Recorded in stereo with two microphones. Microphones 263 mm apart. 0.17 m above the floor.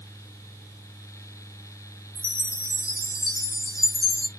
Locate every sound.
2.1 s a chime: 60° right (ahead or behind), 7 m